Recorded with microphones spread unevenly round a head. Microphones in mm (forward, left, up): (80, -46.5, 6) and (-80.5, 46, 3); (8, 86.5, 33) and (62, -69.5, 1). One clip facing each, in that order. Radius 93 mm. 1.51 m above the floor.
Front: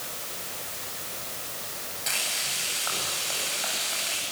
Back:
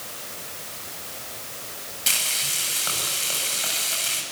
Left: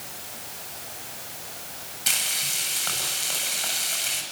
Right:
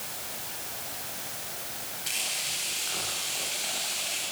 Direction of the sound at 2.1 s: 105° left.